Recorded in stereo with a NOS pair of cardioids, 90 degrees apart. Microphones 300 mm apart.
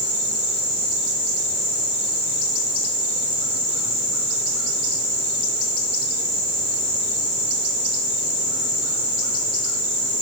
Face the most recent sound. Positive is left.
No sound to turn to.